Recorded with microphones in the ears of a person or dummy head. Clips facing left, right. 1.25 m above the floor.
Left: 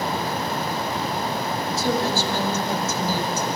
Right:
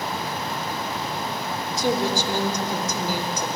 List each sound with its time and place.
1.8 s a woman speaking: 20° right (ahead or behind), 2.5 m